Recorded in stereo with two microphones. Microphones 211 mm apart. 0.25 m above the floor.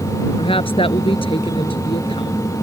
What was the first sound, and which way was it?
A woman speaking, 25° left (ahead or behind).